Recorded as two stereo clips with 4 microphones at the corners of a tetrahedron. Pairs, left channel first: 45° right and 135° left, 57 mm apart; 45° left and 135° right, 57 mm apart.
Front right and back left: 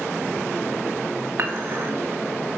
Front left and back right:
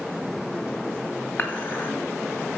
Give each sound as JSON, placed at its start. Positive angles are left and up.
{"t": 1.4, "sound": "dishes clattering", "azimuth_deg": 90, "distance_m": 2.0}